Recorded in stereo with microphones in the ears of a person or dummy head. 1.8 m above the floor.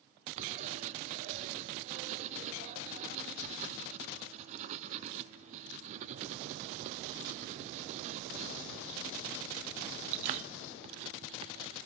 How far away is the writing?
About 0.5 m.